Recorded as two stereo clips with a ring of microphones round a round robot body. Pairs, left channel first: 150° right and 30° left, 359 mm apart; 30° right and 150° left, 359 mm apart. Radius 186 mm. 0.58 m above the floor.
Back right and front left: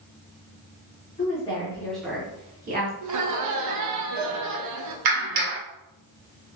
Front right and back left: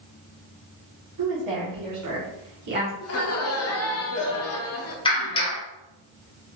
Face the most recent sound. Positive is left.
turn(degrees=45)